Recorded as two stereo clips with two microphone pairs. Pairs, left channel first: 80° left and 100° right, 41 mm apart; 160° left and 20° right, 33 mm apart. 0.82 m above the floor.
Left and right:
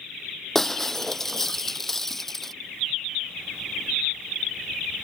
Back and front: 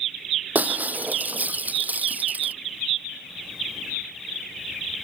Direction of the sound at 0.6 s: 5° right.